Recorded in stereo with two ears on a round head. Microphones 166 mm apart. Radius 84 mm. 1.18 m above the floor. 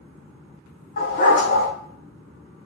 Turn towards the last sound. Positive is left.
turn(degrees=45)  # may be behind; listen again after turning